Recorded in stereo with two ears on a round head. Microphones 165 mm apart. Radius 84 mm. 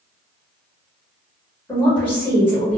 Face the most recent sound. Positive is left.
turn(degrees=10)  # may be behind; listen again after turning